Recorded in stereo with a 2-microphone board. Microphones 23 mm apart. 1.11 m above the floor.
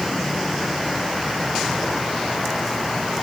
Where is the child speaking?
No child speaking in this recording.